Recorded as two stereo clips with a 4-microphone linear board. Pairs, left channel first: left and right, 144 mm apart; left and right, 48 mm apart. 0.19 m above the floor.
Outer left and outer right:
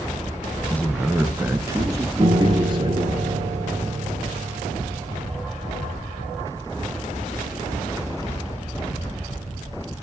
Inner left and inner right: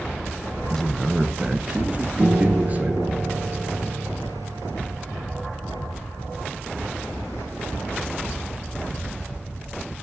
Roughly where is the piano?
Right.